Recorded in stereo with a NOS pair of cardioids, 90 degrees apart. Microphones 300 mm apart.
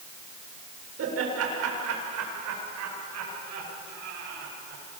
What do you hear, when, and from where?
1.0 s laughter: 55° right, 7.5 m; by 4.8 s 80° right, 11 m